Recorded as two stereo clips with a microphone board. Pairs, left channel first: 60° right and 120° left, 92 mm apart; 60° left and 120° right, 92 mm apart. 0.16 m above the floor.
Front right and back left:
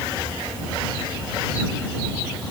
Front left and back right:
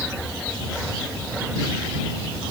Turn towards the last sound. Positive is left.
No sound to turn to.